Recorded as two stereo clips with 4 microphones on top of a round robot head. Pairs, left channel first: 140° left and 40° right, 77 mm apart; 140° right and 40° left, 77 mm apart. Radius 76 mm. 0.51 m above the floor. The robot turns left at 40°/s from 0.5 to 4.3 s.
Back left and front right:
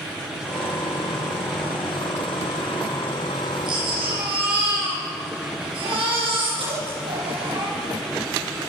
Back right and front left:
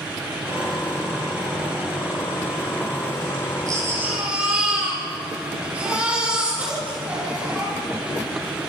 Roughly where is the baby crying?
Ahead.